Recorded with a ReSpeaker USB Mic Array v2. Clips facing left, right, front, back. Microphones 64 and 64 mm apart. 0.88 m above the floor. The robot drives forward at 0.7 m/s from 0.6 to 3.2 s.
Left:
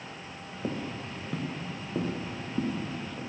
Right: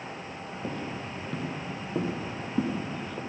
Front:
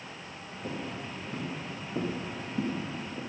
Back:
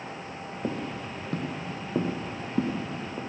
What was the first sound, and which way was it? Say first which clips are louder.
Footsteps: left 1 dB, back 4 dB; 160° left.